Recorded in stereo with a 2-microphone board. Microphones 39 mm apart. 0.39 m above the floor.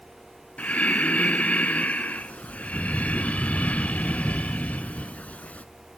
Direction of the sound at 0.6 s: 40° left (ahead or behind).